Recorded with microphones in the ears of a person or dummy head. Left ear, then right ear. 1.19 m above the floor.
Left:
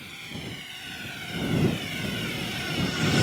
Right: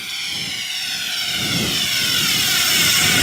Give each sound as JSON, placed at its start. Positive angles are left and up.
{"t": 0.0, "sound": "a drone", "side_deg": -45}